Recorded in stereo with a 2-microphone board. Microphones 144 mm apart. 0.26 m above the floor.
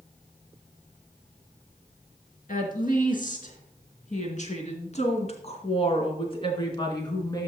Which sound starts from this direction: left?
A woman speaking, at 2.5 s.